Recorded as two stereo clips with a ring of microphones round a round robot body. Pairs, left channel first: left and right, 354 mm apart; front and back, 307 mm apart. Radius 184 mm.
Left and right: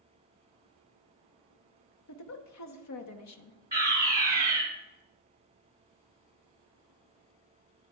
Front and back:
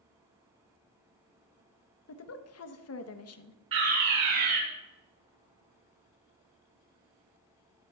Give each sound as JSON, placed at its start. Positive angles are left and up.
{"t": 2.1, "sound": "a woman speaking", "azimuth_deg": 45, "distance_m": 1.0}
{"t": 3.7, "sound": "a fire alarm", "azimuth_deg": -170, "distance_m": 6.0}